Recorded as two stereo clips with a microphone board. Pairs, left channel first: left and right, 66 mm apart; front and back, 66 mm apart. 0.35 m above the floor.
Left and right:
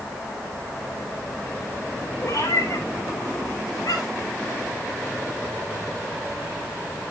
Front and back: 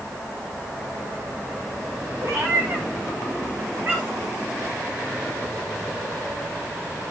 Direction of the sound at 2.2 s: 135° left.